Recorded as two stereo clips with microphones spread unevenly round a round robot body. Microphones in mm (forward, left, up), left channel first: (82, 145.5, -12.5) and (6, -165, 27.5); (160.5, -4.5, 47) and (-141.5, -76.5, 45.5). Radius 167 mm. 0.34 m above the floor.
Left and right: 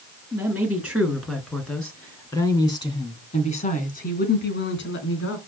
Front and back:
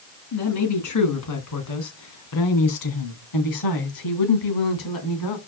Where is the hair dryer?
I don't hear a hair dryer.